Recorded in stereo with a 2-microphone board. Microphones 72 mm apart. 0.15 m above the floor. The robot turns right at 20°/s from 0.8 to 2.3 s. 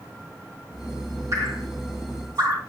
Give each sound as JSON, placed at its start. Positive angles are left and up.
{"t": 1.3, "sound": "dripping", "side_deg": -50, "distance_m": 4.0}